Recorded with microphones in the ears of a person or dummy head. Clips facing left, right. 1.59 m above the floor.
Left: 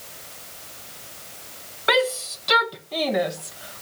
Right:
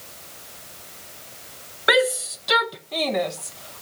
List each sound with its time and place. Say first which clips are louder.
1.9 s a shout: right 2 dB; 15° right (ahead or behind); by 3.8 s 20° left (ahead or behind)